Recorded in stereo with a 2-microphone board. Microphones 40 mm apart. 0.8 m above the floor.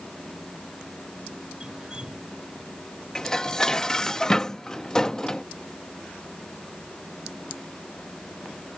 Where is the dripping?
20° right (ahead or behind).